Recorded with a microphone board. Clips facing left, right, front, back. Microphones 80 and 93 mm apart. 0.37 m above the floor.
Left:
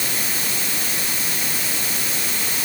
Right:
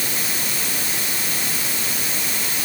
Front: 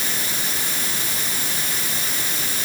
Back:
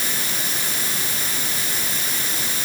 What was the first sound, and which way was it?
Only background noise.